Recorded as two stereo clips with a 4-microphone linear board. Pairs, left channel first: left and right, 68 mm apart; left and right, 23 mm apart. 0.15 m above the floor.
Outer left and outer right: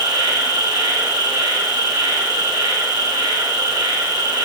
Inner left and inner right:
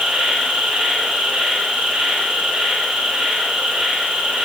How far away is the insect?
About 5 m.